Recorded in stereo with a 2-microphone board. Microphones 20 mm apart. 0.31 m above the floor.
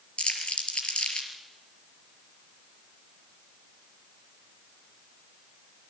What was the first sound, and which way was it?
Crumpling, 80° left.